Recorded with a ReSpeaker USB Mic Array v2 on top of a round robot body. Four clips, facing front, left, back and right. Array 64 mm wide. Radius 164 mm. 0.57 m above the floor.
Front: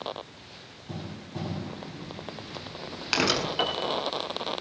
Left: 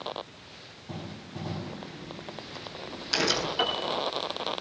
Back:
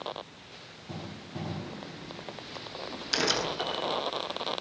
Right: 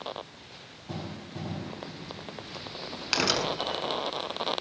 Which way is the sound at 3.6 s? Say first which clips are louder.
Left 3 dB, front 3 dB; 20° left.